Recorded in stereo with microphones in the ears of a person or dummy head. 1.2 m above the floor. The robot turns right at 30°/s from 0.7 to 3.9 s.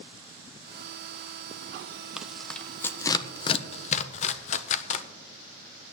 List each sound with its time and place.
2.2 s tearing paper: centre (ahead or behind), 0.7 m; by 5.0 s 40° left (ahead or behind), 0.7 m